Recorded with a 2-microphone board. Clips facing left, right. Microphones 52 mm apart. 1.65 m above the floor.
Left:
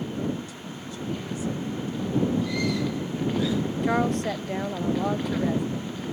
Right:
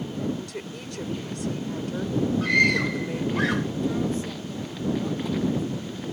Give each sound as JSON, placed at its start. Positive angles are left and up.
{"t": 0.4, "sound": "a woman speaking", "side_deg": -70}
{"t": 2.4, "sound": "a scream", "side_deg": -65}
{"t": 3.8, "sound": "a woman speaking", "side_deg": 60}